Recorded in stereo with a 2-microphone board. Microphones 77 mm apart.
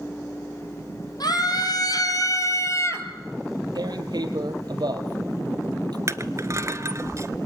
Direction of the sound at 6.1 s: 45° right (ahead or behind).